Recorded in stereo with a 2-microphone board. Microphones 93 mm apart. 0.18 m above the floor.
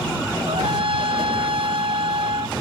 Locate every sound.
0.5 s a trumpet: 70° right (ahead or behind)